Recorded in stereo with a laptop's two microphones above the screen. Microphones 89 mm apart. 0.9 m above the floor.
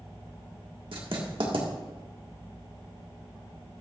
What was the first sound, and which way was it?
Writing, 70° right (ahead or behind).